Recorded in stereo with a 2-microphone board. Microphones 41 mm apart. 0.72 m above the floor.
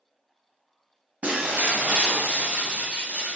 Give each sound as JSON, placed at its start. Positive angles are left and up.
{"t": 1.2, "sound": "breaking glass", "side_deg": -35, "distance_m": 1.2}